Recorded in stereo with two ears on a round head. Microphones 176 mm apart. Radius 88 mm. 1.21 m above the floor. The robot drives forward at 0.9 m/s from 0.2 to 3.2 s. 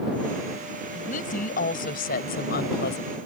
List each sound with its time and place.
0.9 s a woman speaking: 40° left (ahead or behind); by 3.2 s 55° left (ahead or behind)